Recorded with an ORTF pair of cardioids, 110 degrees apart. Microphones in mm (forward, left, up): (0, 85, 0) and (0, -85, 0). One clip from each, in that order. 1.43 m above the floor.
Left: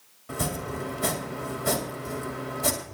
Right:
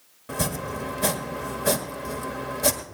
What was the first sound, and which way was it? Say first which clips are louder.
Chopping: right 2 dB; 40° right.